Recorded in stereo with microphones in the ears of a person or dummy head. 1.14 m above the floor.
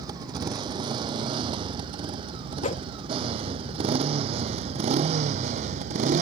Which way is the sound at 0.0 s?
20° right (ahead or behind).